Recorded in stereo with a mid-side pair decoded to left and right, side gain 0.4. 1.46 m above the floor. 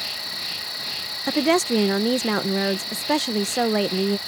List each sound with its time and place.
0.0 s an insect: 5° left
1.3 s a woman speaking: 15° right